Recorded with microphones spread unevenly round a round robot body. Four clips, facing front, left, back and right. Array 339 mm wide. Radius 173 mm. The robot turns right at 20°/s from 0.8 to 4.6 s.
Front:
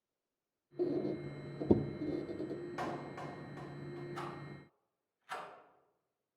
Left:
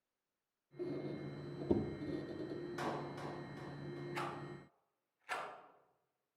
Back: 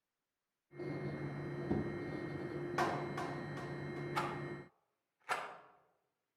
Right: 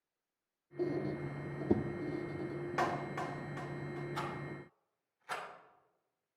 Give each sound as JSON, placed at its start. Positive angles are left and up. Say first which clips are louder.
{"t": 0.8, "sound": "a squeak", "louder": "right 6 dB, front 7 dB", "azimuth_deg": -25, "distance_m": 0.7}
{"t": 2.8, "sound": "a clap", "louder": "right 9 dB, back 4 dB", "azimuth_deg": -130, "distance_m": 1.7}
{"t": 4.2, "sound": "a rattle", "louder": "right 3 dB, back 5 dB", "azimuth_deg": -175, "distance_m": 3.5}